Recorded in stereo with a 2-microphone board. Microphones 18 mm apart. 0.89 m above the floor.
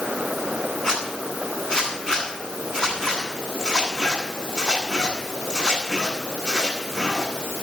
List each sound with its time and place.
0.8 s a zipper: 50° left (ahead or behind), 10 m